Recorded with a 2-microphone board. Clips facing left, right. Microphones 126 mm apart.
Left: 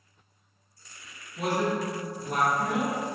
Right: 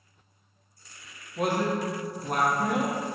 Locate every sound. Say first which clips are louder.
1.4 s a man speaking: right 1 dB; 55° right (ahead or behind), 0.7 m